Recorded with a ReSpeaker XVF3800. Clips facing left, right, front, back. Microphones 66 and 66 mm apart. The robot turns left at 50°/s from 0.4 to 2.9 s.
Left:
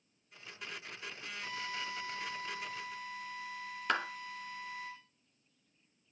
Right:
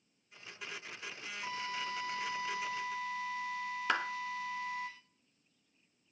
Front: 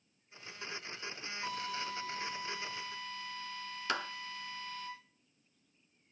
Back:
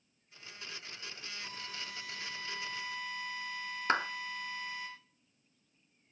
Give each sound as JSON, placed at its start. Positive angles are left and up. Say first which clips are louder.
{"t": 1.4, "sound": "a drill", "louder": "right 2 dB, front 9 dB", "azimuth_deg": -30, "distance_m": 6.5}
{"t": 3.9, "sound": "a clap", "louder": "even, back 6 dB", "azimuth_deg": 180, "distance_m": 1.1}